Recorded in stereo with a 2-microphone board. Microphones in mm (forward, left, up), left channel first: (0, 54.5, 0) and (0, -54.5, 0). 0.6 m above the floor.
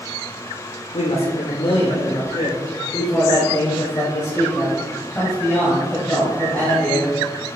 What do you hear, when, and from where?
0.9 s a woman speaking: 65° left (ahead or behind), 1.4 m; by 7.2 s 5° left (ahead or behind), 4 m